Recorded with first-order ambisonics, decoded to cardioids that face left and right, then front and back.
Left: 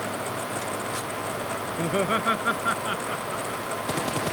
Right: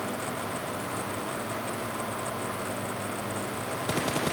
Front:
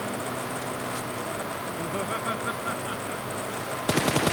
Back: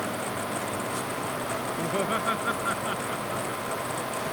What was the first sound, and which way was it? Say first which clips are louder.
Laughter: left 8 dB, back 3 dB; 105° left.